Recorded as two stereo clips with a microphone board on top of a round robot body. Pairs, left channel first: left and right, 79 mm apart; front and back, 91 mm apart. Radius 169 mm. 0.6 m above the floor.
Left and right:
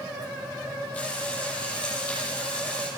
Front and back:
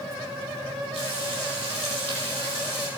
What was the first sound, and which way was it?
Frying, 170° left.